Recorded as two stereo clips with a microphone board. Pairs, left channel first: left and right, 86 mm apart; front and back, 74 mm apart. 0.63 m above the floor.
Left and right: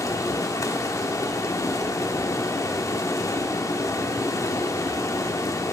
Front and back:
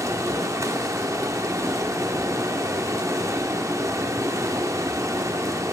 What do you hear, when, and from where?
0.0 s running water: 140° left, 0.7 m